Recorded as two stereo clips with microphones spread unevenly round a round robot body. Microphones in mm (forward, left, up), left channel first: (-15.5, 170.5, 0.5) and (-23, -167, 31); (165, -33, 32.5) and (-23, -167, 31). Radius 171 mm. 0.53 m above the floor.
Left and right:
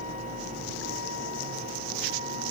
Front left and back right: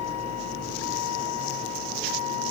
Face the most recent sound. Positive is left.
turn(degrees=35)